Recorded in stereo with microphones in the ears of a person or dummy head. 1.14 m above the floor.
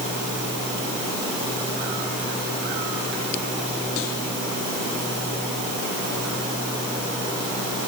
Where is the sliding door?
No sliding door in this recording.